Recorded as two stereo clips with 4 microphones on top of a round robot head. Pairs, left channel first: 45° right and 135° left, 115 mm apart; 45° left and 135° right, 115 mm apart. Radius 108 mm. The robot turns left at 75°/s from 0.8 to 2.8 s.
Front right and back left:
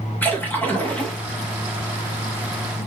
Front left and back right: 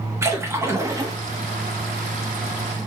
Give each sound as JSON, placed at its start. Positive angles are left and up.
{"t": 0.2, "sound": "a splash", "azimuth_deg": -100, "distance_m": 1.1}